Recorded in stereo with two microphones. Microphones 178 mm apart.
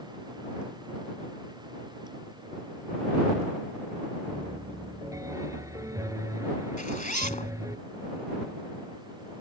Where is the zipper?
50° left (ahead or behind).